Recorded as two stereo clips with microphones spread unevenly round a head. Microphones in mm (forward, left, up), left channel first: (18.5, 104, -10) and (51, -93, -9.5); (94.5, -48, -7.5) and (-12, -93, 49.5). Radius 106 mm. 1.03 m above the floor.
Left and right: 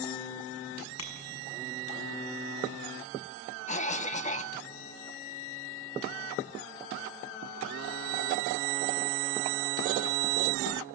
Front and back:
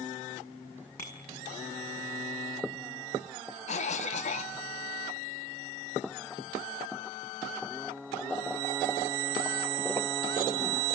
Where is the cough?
45° left, 1.4 m.